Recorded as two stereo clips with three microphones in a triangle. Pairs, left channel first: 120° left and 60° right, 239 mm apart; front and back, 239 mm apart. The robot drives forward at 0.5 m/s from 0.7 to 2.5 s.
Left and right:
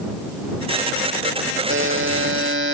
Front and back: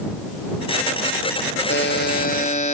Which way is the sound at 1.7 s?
35° right.